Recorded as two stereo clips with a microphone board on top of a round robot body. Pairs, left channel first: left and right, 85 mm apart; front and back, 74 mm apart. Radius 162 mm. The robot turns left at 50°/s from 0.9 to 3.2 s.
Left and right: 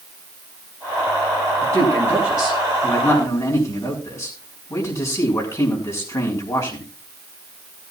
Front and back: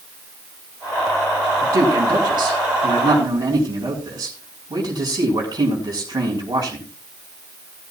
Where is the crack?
No crack in this recording.